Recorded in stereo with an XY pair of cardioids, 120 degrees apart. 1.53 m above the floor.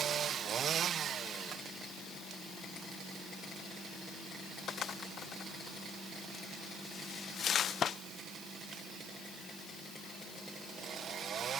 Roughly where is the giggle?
I don't hear a giggle.